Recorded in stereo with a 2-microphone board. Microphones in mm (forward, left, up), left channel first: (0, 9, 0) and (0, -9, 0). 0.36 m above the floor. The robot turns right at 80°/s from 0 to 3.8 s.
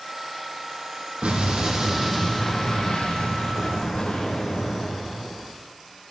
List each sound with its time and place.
1.2 s an explosion: 85° right, 6 m; by 5.5 s 125° left, 6 m